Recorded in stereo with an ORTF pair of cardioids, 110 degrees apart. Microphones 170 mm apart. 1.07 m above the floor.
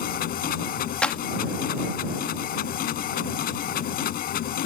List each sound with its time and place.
0.0 s a machine running: 65° left
1.0 s a clap: 5° left